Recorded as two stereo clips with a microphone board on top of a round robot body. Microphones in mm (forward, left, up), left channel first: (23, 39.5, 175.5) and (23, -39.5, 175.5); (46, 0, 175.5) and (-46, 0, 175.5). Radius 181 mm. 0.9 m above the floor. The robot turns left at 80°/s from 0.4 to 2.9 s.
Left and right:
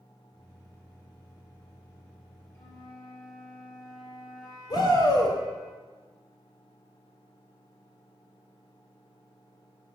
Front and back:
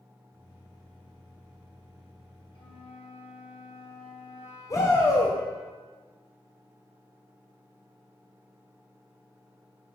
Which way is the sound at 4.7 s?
55° left.